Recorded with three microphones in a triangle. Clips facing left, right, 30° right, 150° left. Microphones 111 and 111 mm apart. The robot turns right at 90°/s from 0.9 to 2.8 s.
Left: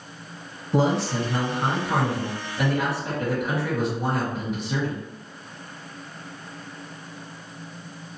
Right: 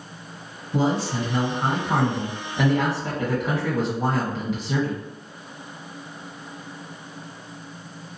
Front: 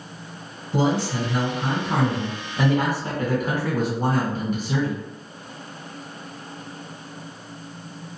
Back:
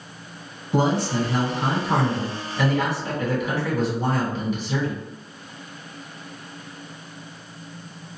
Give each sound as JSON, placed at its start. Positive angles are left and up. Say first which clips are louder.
{"t": 0.7, "sound": "a man speaking", "louder": "left 1 dB, back 1 dB", "azimuth_deg": 110, "distance_m": 1.3}